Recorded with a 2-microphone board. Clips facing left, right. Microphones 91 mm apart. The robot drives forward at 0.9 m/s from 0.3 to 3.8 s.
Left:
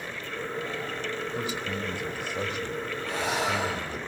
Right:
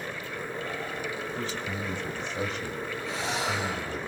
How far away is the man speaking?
About 1.4 m.